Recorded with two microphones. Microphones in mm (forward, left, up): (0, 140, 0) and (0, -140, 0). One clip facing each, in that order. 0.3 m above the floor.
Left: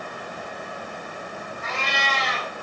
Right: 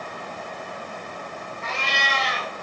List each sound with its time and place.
1.6 s a cat meowing: 5° left (ahead or behind), 1.8 m